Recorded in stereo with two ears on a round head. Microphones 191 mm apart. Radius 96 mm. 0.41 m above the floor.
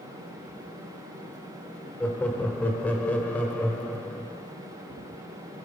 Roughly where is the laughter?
Centre.